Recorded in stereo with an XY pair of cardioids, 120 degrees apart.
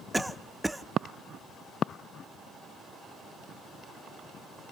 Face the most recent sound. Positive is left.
turn(degrees=-5)